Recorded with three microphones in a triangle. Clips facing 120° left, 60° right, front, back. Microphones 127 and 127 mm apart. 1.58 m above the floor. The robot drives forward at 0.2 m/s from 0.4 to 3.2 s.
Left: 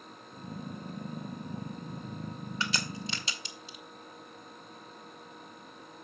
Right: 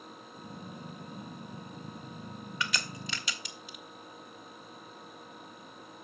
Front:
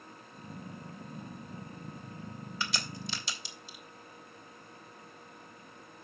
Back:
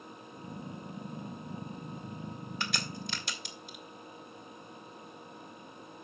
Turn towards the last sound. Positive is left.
turn(degrees=175)